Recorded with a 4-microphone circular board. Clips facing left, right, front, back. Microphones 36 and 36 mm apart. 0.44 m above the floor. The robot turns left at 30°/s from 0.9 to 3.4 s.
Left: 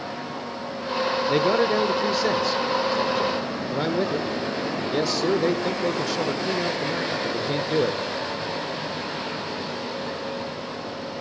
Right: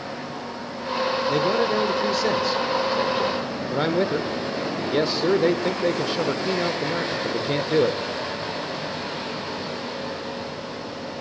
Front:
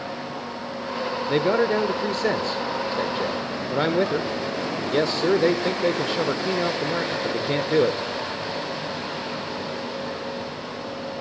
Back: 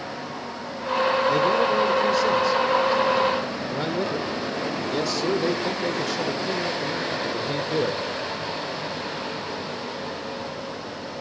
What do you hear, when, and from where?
1.3 s a man speaking: 30° left, 1.1 m; by 8.0 s 30° right, 1.1 m